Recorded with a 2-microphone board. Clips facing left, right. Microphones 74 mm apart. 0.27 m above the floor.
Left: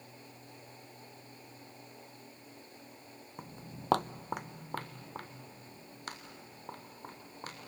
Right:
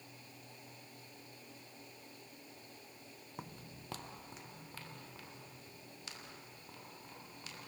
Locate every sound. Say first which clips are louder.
3.4 s footsteps: left 3 dB; centre (ahead or behind), 0.7 m; by 7.6 s 45° left (ahead or behind), 5.5 m